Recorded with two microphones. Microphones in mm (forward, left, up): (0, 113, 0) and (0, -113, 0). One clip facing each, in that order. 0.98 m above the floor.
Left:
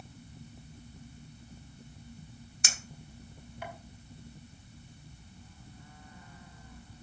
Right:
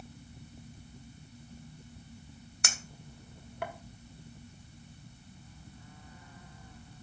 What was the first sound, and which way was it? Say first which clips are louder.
A clink: right 3 dB; 60° right (ahead or behind).